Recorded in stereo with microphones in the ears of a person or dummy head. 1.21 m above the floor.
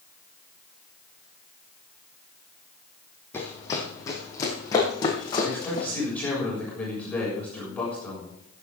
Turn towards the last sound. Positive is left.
turn(degrees=10)  # may be behind; listen again after turning